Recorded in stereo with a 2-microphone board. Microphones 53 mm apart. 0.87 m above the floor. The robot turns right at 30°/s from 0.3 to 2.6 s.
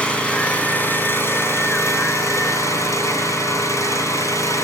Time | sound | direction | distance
0.0 | an engine running | 20° left | 2.5 m